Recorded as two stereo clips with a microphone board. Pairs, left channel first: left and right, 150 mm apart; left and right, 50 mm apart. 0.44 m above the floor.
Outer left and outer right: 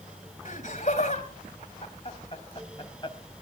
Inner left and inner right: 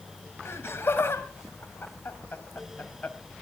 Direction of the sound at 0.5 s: 55° left (ahead or behind).